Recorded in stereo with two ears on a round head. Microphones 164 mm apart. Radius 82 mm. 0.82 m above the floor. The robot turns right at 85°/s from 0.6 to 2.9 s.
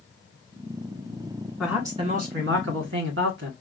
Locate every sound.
1.6 s a man speaking: 175° left, 1.6 m; by 3.5 s 75° right, 1.6 m